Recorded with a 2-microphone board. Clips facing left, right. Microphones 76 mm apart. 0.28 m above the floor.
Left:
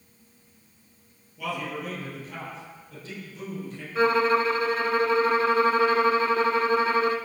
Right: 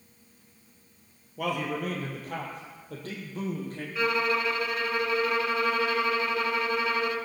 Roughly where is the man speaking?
Right.